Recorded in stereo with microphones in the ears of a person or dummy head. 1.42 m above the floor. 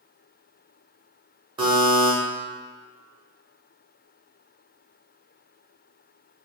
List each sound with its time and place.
1.6 s a buzzer: 30° right (ahead or behind), 1.3 m